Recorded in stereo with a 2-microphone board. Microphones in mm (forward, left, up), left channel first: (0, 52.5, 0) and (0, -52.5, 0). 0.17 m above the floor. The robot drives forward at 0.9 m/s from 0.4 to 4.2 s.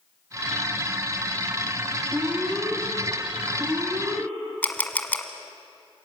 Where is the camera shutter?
15° left (ahead or behind), 1.2 m.